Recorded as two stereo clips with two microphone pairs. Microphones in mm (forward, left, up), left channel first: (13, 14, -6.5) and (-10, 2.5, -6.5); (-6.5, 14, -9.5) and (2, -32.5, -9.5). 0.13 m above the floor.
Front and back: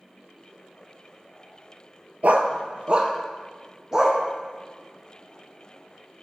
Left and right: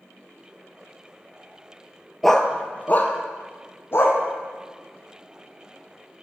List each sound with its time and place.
2.2 s a dog barking: 170° right, 0.5 m; by 4.2 s 135° left, 1.5 m